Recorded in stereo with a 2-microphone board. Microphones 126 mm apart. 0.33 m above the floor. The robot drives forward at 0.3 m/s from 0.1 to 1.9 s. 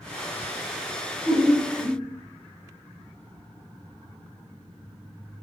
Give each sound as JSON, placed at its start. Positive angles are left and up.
{"t": 1.2, "sound": "laughter", "side_deg": 20, "distance_m": 0.9}